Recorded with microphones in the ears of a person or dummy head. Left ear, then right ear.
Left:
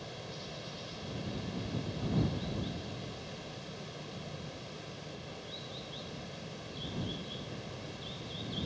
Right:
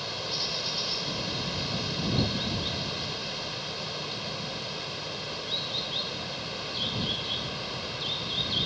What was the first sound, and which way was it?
Running water, 55° right (ahead or behind).